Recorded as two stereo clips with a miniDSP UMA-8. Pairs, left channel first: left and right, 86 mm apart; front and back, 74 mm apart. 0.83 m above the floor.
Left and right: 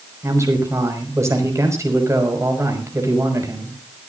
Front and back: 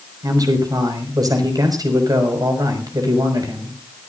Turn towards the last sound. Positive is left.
turn(degrees=-145)